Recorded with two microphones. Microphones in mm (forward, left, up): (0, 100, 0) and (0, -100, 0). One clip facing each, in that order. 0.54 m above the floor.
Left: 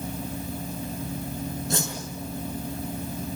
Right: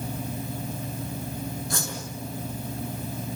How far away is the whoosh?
About 6 m.